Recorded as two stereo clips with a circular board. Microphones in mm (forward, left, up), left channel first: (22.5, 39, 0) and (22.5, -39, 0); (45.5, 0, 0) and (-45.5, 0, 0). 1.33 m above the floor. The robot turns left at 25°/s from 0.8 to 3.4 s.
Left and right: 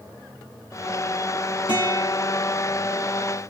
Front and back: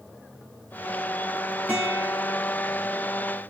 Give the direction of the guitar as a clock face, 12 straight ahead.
9 o'clock.